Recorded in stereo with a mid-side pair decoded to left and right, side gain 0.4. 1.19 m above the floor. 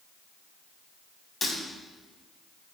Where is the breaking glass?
30° left, 4.5 m.